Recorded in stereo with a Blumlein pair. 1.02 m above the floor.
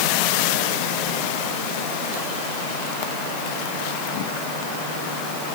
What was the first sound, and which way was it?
Only background noise.